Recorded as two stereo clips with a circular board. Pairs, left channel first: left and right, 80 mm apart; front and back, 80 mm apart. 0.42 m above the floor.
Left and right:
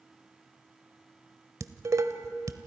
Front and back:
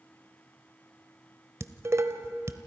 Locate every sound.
1.6 s dishes clattering: 130° right, 1.1 m